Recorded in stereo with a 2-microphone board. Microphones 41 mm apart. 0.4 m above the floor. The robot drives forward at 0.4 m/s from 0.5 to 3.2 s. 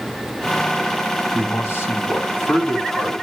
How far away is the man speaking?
About 3 m.